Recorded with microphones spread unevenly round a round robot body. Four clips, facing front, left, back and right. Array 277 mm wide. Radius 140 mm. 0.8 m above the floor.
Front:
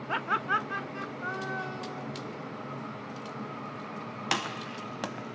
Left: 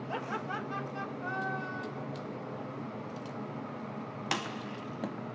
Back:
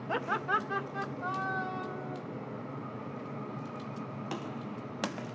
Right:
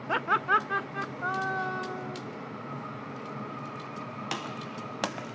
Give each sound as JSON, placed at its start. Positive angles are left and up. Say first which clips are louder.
{"t": 0.1, "sound": "laughter", "louder": "right 11 dB, front 2 dB", "azimuth_deg": -70, "distance_m": 1.6}